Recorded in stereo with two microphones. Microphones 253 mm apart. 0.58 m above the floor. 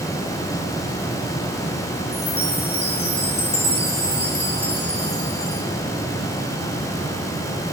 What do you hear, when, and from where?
2.1 s a chime: 40° left (ahead or behind), 3.5 m